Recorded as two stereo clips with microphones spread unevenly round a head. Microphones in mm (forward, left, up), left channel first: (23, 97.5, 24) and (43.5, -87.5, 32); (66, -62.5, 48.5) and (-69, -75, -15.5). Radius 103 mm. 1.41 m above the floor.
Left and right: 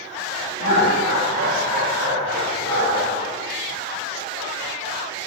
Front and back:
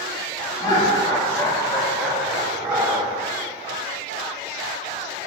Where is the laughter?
60° right, 2.5 m; by 3.1 s 105° right, 2 m.